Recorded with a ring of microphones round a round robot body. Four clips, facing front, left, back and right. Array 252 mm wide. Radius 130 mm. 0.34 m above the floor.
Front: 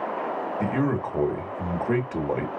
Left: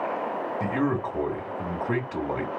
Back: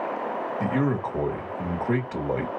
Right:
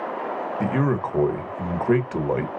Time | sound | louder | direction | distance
0.6 | a man speaking | right 3 dB, even | 85° right | 1.5 m